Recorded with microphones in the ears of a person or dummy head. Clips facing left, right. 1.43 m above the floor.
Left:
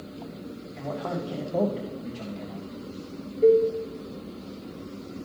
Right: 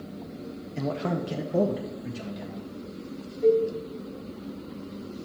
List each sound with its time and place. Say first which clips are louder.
0.8 s a man speaking: right 3 dB; 55° right (ahead or behind), 0.7 m; by 2.7 s centre (ahead or behind), 2.5 m
3.4 s a cowbell: left 3 dB; 40° left (ahead or behind), 1.6 m